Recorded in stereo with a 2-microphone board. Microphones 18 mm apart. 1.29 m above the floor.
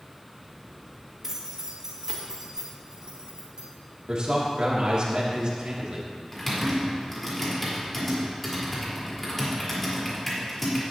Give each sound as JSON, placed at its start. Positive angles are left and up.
{"t": 1.2, "sound": "keys jangling", "side_deg": -30, "distance_m": 2.5}
{"t": 4.1, "sound": "a man speaking", "side_deg": -55, "distance_m": 2.5}
{"t": 6.3, "sound": "typing on a keyboard", "side_deg": 5, "distance_m": 4.0}